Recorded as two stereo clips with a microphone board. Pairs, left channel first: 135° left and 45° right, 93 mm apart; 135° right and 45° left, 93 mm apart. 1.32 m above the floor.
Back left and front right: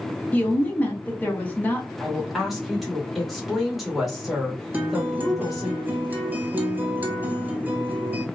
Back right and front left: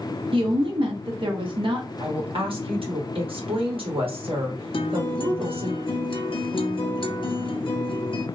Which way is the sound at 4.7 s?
115° right.